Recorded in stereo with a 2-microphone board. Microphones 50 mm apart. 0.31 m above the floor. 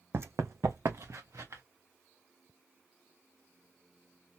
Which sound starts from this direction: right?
Running footsteps, at 0.1 s.